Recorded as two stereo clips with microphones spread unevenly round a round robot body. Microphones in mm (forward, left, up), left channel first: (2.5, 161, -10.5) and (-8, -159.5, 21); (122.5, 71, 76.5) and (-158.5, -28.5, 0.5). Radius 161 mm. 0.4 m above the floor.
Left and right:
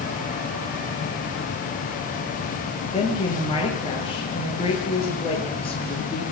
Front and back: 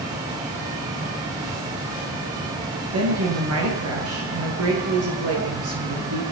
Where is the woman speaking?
160° left, 8 m.